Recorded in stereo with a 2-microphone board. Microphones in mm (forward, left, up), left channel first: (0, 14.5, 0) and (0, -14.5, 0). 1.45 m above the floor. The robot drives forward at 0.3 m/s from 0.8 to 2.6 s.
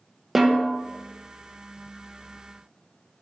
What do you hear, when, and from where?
0.3 s a snare drum: 5° right (ahead or behind), 0.9 m